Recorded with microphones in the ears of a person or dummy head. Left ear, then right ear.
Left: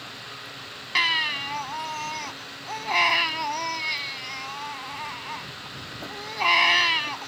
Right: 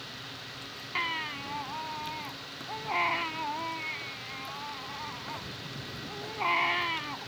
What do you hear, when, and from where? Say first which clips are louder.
0.9 s a baby crying: left 10 dB; 85° left